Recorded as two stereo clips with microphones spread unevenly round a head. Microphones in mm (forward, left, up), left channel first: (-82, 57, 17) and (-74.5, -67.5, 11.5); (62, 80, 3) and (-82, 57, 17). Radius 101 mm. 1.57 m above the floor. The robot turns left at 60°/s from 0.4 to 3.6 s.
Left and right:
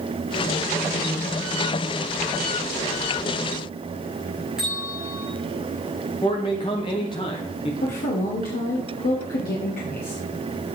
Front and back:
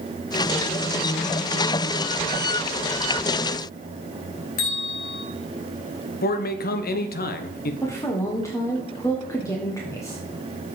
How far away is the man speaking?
About 0.9 m.